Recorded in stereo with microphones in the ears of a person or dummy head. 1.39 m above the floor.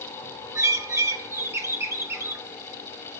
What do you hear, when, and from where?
0.6 s a bird: 15° right (ahead or behind), 0.9 m